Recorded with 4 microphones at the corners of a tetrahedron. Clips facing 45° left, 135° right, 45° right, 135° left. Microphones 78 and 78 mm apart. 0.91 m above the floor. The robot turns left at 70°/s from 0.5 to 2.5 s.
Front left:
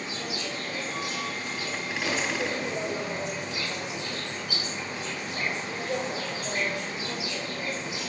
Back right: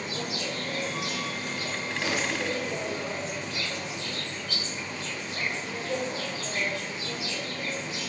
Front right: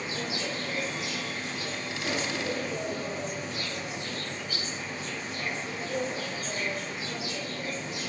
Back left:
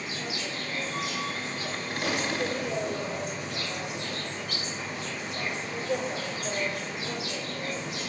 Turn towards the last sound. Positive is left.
turn(degrees=120)